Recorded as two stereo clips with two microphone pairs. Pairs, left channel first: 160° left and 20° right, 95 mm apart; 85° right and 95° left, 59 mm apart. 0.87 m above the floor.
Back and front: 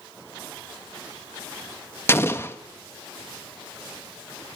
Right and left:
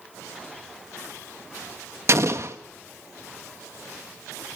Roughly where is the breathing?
I don't hear breathing.